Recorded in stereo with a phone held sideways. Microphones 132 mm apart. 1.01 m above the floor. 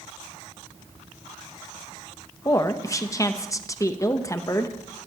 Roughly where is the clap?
I don't hear a clap.